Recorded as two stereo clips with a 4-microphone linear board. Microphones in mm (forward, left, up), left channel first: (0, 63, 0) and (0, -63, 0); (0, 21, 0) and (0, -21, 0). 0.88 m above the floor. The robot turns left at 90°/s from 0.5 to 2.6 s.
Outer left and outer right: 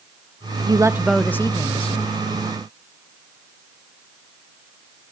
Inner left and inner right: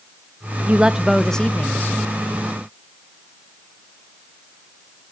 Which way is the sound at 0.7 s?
135° right.